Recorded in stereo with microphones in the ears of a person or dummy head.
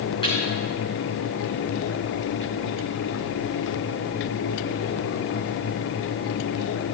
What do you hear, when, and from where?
0.2 s a snare drum: 25° left (ahead or behind), 4 m